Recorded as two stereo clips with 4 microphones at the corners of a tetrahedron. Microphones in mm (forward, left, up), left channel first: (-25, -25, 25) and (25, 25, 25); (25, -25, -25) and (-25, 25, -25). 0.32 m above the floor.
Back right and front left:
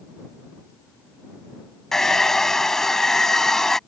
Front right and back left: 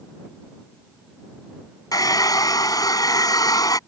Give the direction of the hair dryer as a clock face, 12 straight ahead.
2 o'clock.